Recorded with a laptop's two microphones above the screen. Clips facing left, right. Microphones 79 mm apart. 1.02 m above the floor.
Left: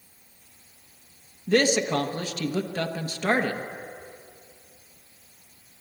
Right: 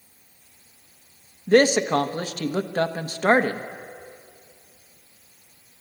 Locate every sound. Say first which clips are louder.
1.5 s a man speaking: right 5 dB; 45° right (ahead or behind), 1.2 m